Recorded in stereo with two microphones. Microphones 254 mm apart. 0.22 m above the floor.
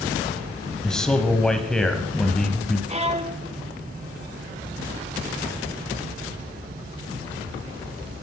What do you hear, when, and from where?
0.8 s a man speaking: centre (ahead or behind), 1.0 m
2.9 s a violin: 25° right (ahead or behind), 0.6 m